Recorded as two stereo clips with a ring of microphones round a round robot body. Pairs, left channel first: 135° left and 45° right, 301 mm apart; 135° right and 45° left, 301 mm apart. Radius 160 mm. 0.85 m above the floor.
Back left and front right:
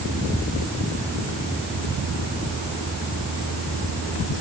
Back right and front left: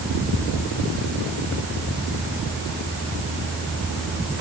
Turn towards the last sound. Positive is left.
No sound to turn to.